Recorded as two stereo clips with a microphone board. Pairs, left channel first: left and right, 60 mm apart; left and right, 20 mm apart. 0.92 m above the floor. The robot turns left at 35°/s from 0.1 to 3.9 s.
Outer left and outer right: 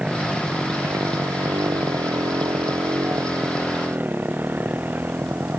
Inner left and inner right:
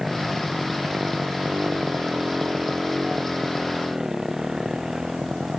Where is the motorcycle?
15° right; by 5.6 s 150° right.